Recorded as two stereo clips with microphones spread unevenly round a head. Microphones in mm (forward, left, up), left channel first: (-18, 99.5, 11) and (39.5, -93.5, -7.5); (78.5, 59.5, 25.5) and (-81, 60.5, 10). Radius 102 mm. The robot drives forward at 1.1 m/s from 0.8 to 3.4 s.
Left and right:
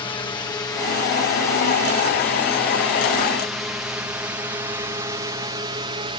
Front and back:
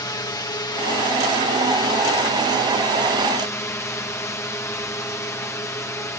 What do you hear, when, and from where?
0.0 s a drone: 50° left; by 6.2 s 65° right